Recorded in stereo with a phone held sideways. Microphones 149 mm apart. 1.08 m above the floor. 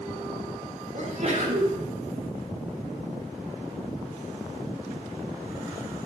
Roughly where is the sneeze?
Right.